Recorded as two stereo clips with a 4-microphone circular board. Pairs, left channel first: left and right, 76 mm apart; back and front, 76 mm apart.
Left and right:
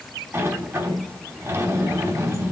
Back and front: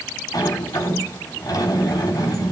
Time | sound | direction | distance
0.3 | a sliding door | 145° right | 3 m